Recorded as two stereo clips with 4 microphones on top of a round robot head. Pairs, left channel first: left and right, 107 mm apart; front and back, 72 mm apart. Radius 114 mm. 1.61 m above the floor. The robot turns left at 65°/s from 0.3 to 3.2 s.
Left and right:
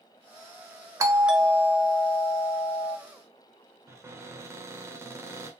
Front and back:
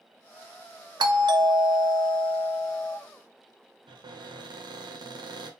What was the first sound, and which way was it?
A doorbell, 150° right.